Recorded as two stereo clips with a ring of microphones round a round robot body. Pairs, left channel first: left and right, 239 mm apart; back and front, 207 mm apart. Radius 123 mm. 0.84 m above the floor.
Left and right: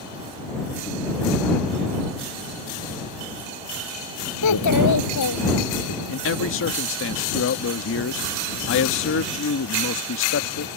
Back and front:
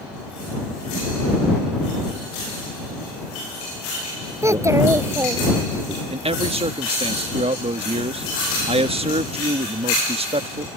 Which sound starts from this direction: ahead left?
A man speaking, at 6.1 s.